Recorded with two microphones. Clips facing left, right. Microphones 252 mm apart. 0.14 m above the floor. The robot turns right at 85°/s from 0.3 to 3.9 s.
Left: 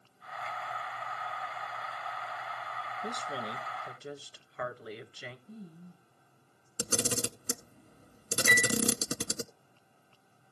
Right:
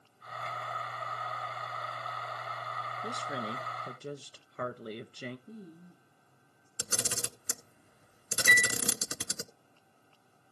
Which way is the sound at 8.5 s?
60° right (ahead or behind).